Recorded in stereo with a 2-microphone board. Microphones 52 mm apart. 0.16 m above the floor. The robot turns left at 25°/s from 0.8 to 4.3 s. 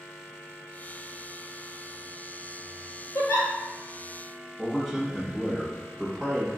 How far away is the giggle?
About 1.0 m.